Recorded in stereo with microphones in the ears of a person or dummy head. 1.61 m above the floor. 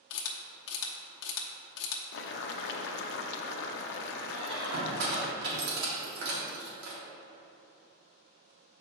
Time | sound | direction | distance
0.1 | a camera shutter | 70° left (ahead or behind) | 0.8 m
2.1 | boiling | 65° left (ahead or behind) | 0.6 m
4.3 | a squeak | 65° right (ahead or behind) | 1.8 m